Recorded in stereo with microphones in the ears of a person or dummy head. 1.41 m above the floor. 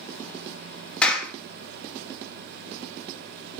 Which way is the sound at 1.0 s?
5° left (ahead or behind).